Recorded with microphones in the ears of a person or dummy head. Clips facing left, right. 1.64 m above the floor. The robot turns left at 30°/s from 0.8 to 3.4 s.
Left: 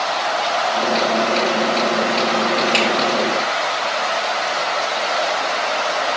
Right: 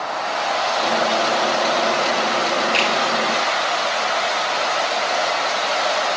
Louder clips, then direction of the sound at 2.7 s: Left 3 dB; 20° left (ahead or behind).